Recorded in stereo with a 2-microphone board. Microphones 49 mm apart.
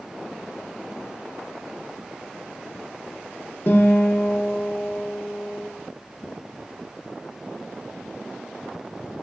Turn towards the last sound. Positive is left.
turn(degrees=50)  # may be behind; listen again after turning